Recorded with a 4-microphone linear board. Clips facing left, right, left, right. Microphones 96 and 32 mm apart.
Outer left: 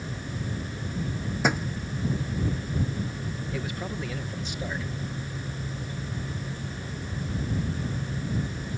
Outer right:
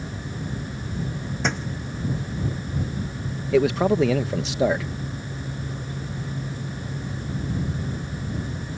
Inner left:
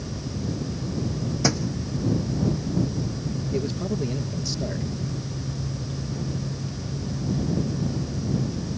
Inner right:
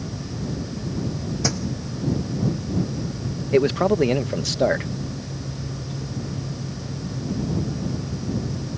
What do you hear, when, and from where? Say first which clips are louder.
1.4 s a thud: outer left 2 dB, inner left 2 dB; 10° left (ahead or behind)
3.5 s a man speaking: outer right 19 dB, inner right 12 dB; 85° right